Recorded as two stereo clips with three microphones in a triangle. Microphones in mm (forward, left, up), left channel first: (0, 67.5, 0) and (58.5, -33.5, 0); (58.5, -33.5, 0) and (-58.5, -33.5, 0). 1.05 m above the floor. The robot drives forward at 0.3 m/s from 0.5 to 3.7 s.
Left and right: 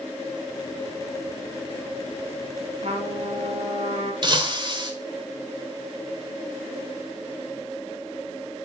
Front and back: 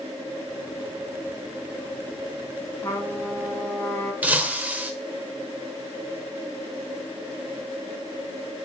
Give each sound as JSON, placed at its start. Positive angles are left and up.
{"t": 2.8, "sound": "a trumpet", "azimuth_deg": -65, "distance_m": 2.5}
{"t": 4.2, "sound": "breaking glass", "azimuth_deg": -105, "distance_m": 1.4}